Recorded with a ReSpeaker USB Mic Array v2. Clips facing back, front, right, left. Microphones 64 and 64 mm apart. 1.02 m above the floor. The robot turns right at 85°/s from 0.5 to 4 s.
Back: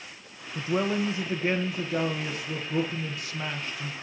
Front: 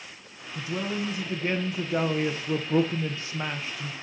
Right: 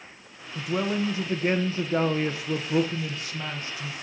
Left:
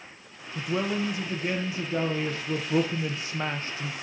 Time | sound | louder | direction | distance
0.6 | a man speaking | back 4 dB, right 1 dB | 175° left | 0.8 m